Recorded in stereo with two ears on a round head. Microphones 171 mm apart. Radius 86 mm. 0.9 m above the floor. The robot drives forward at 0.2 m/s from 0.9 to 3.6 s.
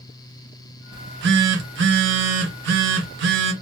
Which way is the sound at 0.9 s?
60° right (ahead or behind).